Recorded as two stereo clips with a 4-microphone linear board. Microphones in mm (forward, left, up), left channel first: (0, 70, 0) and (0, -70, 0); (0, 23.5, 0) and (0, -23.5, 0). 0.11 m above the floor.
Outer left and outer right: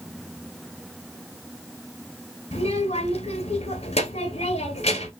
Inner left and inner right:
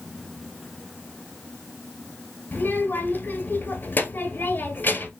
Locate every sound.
2.5 s a child speaking: 50° left (ahead or behind), 1.2 m